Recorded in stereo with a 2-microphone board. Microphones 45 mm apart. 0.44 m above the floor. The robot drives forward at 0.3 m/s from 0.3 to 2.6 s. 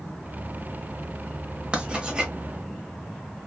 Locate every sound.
1.7 s writing: 25° right (ahead or behind), 0.9 m; by 2.3 s 20° right (ahead or behind), 1.1 m